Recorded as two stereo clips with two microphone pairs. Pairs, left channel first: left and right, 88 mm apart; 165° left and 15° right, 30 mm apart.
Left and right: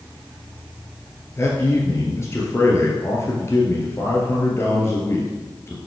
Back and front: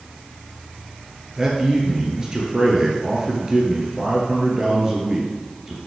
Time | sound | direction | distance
1.4 | a man speaking | 45° left | 2.5 m